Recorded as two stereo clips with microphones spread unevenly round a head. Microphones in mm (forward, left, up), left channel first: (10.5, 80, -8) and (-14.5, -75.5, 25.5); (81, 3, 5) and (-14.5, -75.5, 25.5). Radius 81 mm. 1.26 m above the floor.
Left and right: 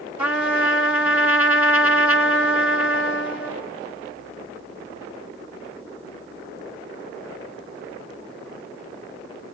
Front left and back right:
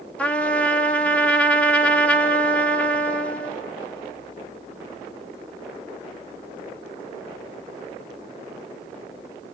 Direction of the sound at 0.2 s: 50° right.